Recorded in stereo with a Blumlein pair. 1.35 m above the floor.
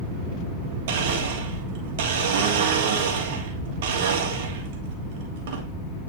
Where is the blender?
55° right, 3 m.